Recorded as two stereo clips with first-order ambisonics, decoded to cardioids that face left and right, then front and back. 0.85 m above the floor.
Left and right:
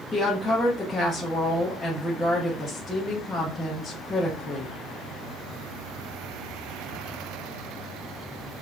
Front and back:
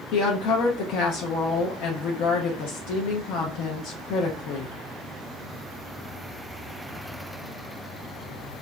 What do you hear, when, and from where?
0.1 s a woman speaking: 10° left, 0.6 m